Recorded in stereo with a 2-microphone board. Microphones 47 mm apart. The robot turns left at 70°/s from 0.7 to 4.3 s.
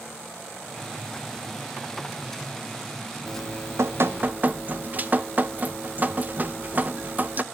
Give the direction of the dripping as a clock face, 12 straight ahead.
2 o'clock.